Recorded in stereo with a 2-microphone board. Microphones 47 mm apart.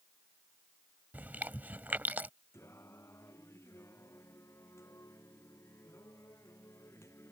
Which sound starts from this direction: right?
Chewing, at 1.1 s.